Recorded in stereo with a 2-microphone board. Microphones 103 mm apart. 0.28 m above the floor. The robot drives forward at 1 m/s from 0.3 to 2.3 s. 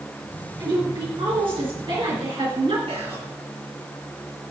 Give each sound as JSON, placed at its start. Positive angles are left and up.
{"t": 0.6, "sound": "a woman speaking", "side_deg": -55, "distance_m": 5.0}
{"t": 2.9, "sound": "whispering", "side_deg": -80, "distance_m": 4.5}